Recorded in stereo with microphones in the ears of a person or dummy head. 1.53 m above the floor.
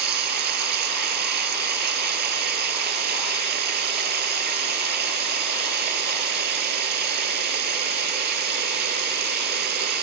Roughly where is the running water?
Right.